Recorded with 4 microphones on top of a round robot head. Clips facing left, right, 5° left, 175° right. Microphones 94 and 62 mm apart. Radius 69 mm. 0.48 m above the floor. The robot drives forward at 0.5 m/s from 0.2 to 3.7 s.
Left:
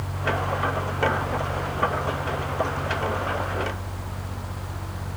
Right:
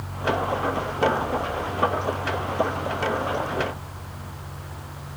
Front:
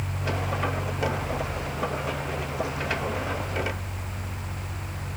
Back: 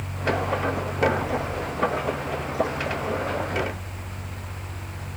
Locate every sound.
Only background noise.